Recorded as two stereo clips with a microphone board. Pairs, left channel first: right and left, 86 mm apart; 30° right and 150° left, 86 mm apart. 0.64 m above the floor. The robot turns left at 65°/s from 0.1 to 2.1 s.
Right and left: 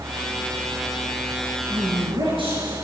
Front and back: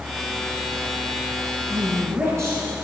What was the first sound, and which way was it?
A woman speaking, 120° left.